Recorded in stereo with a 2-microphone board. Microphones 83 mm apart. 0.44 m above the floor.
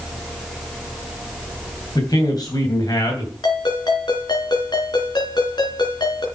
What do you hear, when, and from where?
1.9 s a man speaking: 55° left (ahead or behind), 3.5 m
3.4 s a ringtone: 65° left (ahead or behind), 3.5 m